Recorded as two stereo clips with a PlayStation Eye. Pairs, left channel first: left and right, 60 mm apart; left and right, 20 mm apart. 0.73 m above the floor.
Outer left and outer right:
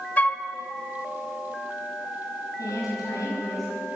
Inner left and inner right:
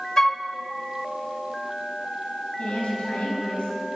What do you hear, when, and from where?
0.2 s a flute: 25° left (ahead or behind), 1.3 m
2.6 s a woman speaking: 75° left (ahead or behind), 6 m